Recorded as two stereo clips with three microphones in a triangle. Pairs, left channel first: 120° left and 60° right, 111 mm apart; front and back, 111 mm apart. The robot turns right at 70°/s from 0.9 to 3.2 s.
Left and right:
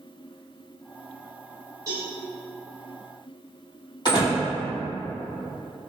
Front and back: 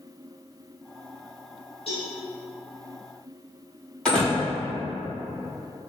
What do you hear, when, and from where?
1.9 s a cowbell: 5° right, 1.8 m; by 2.1 s 15° left, 1.8 m
4.0 s a door slam: 85° left, 2.0 m